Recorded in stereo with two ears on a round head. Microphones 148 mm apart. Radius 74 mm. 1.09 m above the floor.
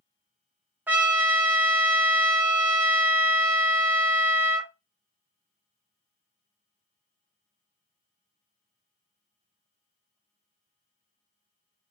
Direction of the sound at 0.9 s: 10° right (ahead or behind).